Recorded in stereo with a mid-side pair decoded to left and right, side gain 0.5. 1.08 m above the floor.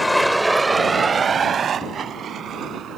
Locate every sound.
0.0 s a vehicle: 10° left; by 3.0 s 60° right